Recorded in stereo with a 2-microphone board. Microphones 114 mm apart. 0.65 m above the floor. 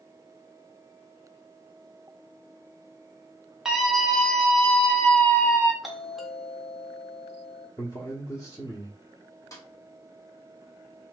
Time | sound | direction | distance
3.6 | a scream | 5° right (ahead or behind) | 1.5 m
5.8 | a doorbell | centre (ahead or behind) | 0.9 m
7.8 | a man speaking | 30° left (ahead or behind) | 1.2 m
9.5 | a snare drum | 30° left (ahead or behind) | 1.5 m